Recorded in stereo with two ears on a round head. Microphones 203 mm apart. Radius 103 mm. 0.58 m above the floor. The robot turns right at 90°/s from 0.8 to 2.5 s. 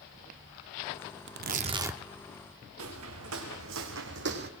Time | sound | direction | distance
1.3 | tearing paper | 70° right | 0.6 m
2.8 | footsteps | 80° right | 2.5 m